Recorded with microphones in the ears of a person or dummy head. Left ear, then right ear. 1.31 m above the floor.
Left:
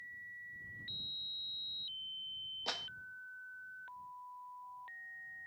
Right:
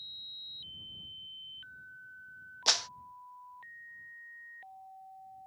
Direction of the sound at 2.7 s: 50° right (ahead or behind).